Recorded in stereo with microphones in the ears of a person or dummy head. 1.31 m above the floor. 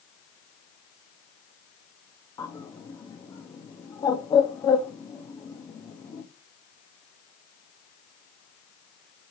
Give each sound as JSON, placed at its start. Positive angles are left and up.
{"t": 2.4, "sound": "a bird", "side_deg": 20, "distance_m": 0.7}